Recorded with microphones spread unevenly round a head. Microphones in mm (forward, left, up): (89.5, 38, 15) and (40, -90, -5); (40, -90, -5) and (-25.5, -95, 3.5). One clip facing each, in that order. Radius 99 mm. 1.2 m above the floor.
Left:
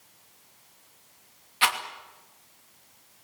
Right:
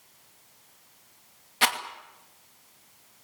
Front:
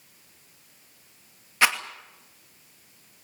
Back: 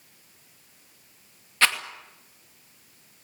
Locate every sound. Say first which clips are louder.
1.6 s a rattle: even, front 1 dB; 70° right, 2.5 m